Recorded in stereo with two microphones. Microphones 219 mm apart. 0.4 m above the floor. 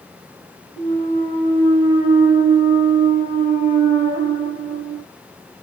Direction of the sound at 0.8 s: 10° right (ahead or behind).